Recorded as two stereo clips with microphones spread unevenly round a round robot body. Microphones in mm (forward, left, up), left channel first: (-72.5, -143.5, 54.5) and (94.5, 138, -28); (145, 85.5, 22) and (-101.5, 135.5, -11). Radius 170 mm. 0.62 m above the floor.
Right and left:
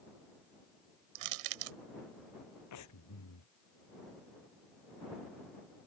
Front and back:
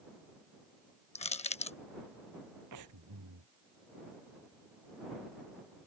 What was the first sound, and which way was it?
Crushing, 55° left.